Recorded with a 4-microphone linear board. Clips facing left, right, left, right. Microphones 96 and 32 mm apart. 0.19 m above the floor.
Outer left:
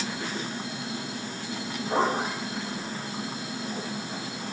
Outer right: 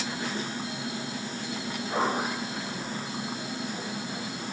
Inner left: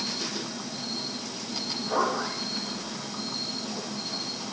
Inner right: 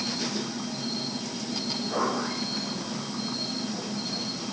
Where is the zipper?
40° left (ahead or behind), 7 m.